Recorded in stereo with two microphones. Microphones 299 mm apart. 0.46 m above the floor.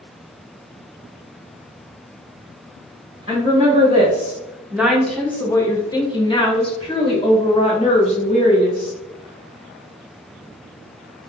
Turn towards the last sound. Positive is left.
turn(degrees=25)  # may be behind; listen again after turning